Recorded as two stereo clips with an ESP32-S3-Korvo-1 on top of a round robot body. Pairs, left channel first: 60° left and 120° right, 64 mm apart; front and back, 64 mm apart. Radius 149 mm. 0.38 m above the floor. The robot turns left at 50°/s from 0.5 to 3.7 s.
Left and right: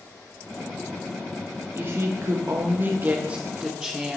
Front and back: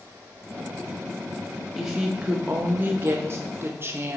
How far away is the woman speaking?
About 1.0 m.